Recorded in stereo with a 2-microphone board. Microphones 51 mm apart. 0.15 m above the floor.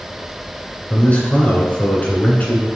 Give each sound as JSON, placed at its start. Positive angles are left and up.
{"t": 0.9, "sound": "a man speaking", "side_deg": 30, "distance_m": 1.5}